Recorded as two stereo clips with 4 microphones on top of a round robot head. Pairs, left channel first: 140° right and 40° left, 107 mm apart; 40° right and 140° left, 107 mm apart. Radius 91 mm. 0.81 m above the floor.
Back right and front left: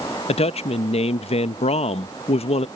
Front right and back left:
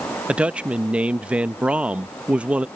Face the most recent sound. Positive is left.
turn(degrees=-140)